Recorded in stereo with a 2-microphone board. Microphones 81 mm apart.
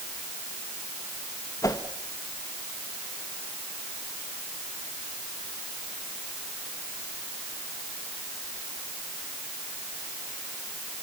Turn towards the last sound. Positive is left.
turn(degrees=45)  # may be behind; listen again after turning